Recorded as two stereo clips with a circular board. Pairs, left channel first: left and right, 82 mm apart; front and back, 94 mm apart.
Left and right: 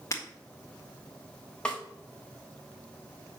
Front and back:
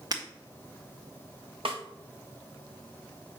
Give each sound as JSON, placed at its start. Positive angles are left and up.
{"t": 0.1, "sound": "breaking glass", "azimuth_deg": 140, "distance_m": 1.8}
{"t": 1.6, "sound": "a snare drum", "azimuth_deg": 170, "distance_m": 1.8}